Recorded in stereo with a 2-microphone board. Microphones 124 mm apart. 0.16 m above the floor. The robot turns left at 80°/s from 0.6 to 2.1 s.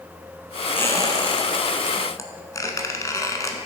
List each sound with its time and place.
0.8 s a squeak: 20° left (ahead or behind), 0.8 m; by 3.6 s 30° left (ahead or behind), 0.8 m